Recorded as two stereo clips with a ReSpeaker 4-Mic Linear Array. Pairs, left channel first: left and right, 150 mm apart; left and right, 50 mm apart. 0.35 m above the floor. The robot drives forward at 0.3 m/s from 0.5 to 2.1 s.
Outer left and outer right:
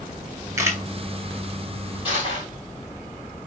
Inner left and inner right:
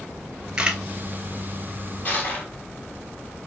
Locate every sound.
0.6 s a camera shutter: 20° right (ahead or behind), 0.9 m
2.0 s crushing: 35° left (ahead or behind), 2 m